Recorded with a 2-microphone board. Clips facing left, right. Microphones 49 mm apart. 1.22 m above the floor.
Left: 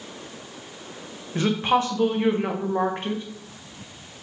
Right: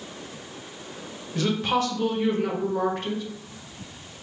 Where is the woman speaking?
25° left (ahead or behind), 0.7 m.